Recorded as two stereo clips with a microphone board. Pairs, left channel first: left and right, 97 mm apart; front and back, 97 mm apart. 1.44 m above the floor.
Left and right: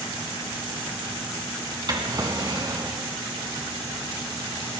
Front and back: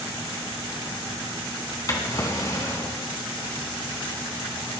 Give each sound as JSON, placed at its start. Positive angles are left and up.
{"t": 1.9, "sound": "a drawer", "azimuth_deg": -50, "distance_m": 3.0}